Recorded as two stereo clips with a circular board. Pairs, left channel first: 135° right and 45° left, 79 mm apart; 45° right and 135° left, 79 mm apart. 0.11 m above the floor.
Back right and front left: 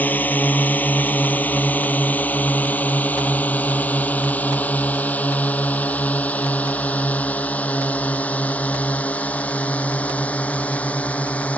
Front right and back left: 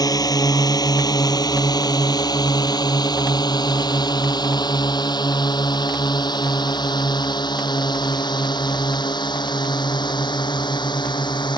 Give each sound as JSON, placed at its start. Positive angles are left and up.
{"t": 0.0, "sound": "a drone", "azimuth_deg": -70}